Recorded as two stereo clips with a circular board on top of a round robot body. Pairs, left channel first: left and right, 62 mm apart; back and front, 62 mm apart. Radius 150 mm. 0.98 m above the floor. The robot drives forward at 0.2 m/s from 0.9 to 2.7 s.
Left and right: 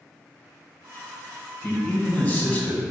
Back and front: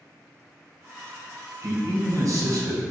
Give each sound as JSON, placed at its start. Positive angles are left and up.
{"t": 1.6, "sound": "a man speaking", "azimuth_deg": 25, "distance_m": 0.9}